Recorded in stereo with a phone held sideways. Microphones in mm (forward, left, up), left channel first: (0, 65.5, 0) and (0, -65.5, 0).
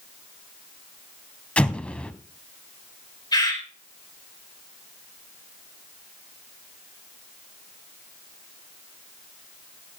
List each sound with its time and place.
1.6 s an explosion: 10° left (ahead or behind), 0.9 m
3.3 s a bird: 30° left (ahead or behind), 4 m